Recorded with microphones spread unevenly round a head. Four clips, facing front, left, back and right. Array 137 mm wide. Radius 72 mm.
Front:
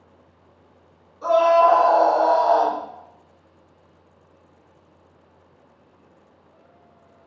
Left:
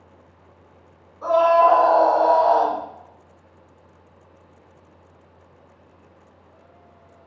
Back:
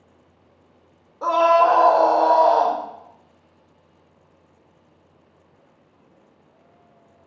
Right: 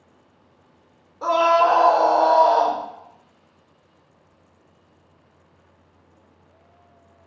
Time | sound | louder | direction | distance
1.2 | a scream | left 2 dB, even | 145° right | 0.6 m